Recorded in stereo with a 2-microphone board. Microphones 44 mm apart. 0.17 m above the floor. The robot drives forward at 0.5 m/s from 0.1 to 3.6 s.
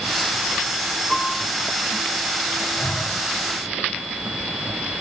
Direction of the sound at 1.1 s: 10° left (ahead or behind).